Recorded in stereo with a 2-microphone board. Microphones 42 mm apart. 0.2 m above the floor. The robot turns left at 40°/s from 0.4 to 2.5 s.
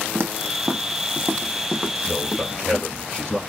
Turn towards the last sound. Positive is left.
turn(degrees=0)  # may be behind; listen again after turning